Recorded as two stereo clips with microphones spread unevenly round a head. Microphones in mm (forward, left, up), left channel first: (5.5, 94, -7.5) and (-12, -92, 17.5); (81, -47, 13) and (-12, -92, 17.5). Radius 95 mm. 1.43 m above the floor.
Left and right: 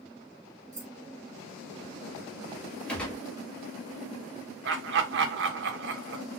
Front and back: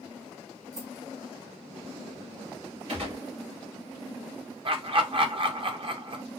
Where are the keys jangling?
165° right, 1.6 m.